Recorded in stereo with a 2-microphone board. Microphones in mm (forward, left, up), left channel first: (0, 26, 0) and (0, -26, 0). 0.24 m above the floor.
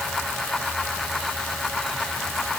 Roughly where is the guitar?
I don't hear a guitar.